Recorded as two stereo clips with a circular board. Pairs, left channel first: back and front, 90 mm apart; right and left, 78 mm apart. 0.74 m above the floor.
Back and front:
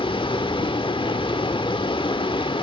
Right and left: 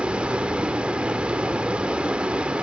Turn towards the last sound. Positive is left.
turn(degrees=165)